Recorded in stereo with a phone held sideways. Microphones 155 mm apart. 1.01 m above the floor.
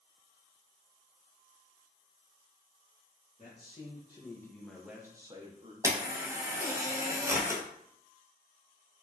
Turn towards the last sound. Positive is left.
turn(degrees=-15)  # may be behind; listen again after turning